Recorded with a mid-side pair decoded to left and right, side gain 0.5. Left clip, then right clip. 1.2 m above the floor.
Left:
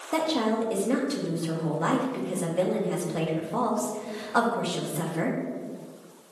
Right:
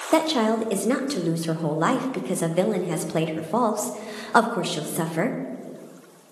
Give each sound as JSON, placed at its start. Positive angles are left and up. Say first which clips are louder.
{"t": 0.1, "sound": "a woman speaking", "louder": "right 5 dB", "azimuth_deg": -50, "distance_m": 0.6}